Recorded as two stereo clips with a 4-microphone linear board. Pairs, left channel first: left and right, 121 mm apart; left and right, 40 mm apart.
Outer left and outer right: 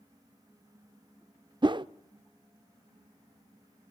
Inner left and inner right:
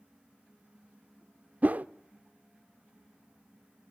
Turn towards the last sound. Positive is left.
turn(degrees=-40)  # may be behind; listen again after turning